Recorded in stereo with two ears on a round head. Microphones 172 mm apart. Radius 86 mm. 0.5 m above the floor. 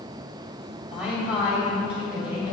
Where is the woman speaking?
5° right (ahead or behind), 3 m; by 2.5 s 10° right (ahead or behind), 3.5 m.